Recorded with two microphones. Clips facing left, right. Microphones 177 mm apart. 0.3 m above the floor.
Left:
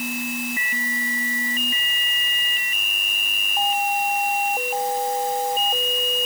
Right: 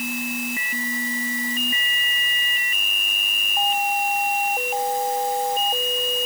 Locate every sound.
Only background noise.